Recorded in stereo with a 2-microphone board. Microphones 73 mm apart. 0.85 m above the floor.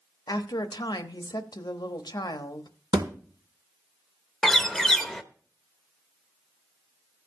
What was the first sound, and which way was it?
A woman speaking, 70° left (ahead or behind).